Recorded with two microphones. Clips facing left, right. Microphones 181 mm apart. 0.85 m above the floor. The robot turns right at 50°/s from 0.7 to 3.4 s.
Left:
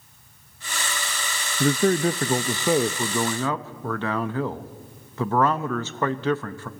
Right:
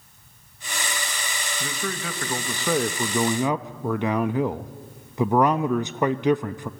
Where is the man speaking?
110° left, 0.6 m; by 6.7 s 160° right, 0.6 m.